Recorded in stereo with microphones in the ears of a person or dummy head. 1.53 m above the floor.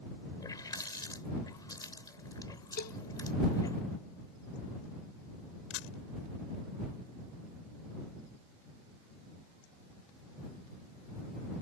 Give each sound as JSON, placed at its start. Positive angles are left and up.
{"t": 0.4, "sound": "a running tap", "side_deg": 20}
{"t": 2.8, "sound": "a cowbell", "side_deg": 55}
{"t": 5.7, "sound": "a camera shutter", "side_deg": 70}